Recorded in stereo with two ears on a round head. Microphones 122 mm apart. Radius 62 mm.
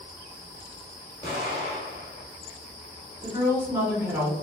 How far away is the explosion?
About 1.1 m.